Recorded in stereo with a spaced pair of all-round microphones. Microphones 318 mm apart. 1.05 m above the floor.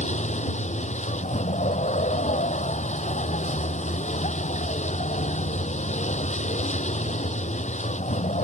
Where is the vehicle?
20° left (ahead or behind).